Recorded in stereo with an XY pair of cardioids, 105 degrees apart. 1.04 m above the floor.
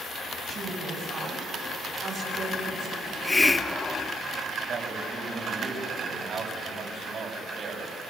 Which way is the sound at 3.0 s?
15° left.